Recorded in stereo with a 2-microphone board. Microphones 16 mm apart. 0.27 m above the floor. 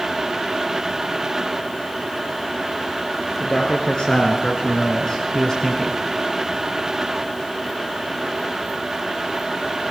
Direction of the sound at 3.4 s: 70° left (ahead or behind).